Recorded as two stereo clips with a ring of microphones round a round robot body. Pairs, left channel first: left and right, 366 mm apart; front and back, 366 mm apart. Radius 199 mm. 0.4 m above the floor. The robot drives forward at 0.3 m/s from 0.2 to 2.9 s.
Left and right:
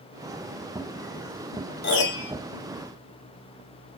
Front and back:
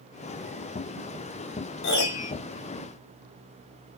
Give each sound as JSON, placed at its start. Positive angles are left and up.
{"t": 1.8, "sound": "a piano", "azimuth_deg": 45, "distance_m": 0.6}